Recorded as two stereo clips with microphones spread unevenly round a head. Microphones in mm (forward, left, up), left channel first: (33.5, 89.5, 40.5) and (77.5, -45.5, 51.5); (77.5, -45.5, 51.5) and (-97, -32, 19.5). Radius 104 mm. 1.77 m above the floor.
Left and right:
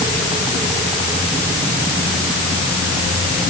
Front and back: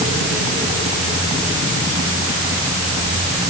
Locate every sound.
Only background noise.